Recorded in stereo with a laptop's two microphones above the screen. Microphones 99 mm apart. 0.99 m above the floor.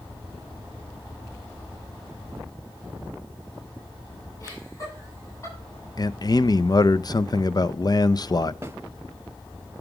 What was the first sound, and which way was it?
Laughter, 30° left (ahead or behind).